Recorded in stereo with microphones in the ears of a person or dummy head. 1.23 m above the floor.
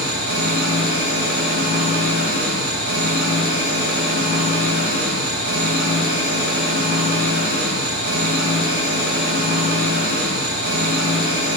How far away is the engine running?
About 1.0 m.